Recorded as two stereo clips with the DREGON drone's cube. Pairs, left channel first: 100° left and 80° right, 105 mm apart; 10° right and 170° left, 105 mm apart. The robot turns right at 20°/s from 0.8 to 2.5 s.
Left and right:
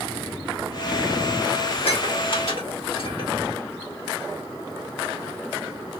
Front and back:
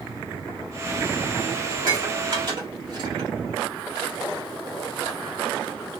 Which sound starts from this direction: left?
Dishes clattering, at 1.7 s.